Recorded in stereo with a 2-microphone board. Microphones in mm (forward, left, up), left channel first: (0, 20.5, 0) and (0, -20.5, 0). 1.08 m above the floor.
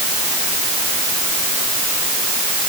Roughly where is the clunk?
No clunk in this recording.